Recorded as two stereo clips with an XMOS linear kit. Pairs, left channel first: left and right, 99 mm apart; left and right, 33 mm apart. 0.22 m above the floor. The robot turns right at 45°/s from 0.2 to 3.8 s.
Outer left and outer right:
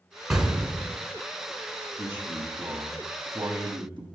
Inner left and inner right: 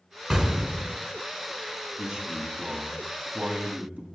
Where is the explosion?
175° right, 1.1 m; by 1.0 s 145° right, 1.1 m.